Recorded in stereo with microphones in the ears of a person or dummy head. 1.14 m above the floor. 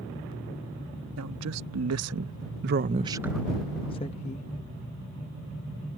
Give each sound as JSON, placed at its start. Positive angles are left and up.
{"t": 1.2, "sound": "a woman speaking", "side_deg": -85}